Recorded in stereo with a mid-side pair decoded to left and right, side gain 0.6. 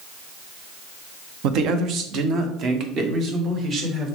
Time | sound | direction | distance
1.4 | a man speaking | 70° right | 0.8 m